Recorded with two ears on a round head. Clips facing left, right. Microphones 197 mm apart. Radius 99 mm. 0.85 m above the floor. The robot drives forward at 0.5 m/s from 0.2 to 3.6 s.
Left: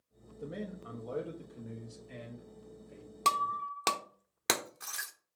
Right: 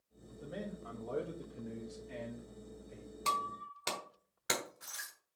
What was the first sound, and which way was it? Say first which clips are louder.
A man speaking: left 3 dB; 30° left (ahead or behind).